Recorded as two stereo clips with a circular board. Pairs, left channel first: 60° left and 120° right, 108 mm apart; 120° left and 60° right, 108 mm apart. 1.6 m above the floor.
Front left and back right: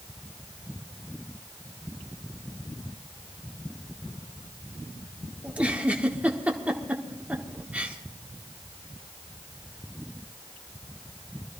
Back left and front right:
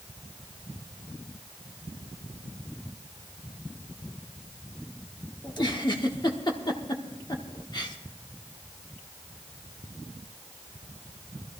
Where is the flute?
No flute in this recording.